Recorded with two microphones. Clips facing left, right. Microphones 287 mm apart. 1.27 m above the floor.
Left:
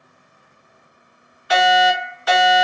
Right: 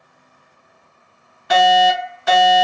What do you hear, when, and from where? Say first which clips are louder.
1.5 s a fire alarm: right 2 dB; 55° right (ahead or behind), 1.8 m